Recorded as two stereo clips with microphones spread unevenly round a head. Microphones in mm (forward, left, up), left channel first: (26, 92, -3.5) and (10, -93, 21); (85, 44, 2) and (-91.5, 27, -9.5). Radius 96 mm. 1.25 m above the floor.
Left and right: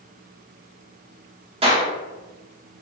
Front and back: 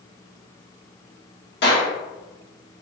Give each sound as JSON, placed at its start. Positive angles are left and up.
{"t": 1.6, "sound": "a clap", "azimuth_deg": -35, "distance_m": 1.5}